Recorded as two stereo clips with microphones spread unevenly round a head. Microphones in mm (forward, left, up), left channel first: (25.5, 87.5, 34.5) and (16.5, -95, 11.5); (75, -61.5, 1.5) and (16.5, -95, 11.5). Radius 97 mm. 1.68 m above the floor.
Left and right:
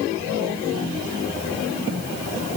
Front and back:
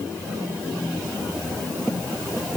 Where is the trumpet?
I don't hear a trumpet.